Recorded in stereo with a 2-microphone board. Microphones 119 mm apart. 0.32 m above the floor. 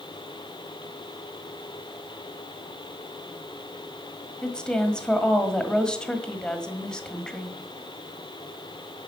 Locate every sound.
4.4 s a woman speaking: 5° left (ahead or behind), 1.5 m